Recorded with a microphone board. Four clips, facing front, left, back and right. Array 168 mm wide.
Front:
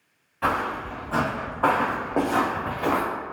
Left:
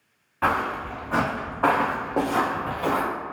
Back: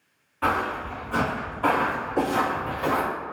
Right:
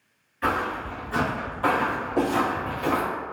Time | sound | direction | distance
0.4 | footsteps | 90° left | 1.5 m